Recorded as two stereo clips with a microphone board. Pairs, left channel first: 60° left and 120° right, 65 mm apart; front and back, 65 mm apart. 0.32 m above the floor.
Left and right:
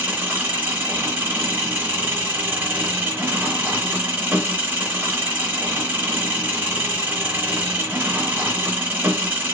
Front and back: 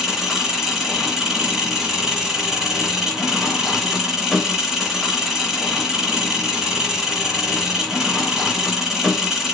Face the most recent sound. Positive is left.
turn(degrees=-100)